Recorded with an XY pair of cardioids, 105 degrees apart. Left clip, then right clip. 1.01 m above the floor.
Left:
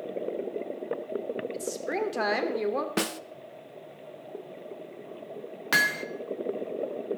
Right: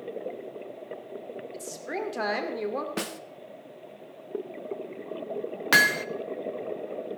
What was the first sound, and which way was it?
A woman speaking, 10° left.